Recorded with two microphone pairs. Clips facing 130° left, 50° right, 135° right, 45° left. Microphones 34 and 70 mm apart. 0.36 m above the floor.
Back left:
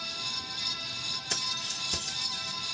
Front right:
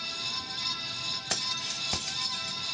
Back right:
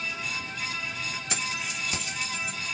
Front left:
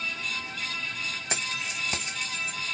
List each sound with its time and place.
1.3 s keys jangling: 5° right, 1.4 m